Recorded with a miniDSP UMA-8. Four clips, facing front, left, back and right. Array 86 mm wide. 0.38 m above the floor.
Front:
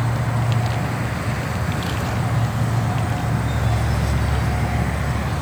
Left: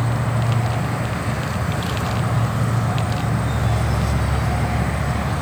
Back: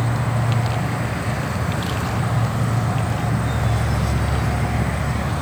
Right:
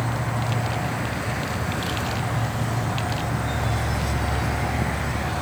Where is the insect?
120° left.